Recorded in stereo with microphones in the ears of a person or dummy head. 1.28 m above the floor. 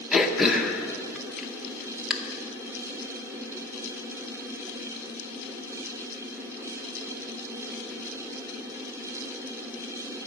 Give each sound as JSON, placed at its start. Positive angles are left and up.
{"t": 0.1, "sound": "throat clearing", "side_deg": 0, "distance_m": 0.8}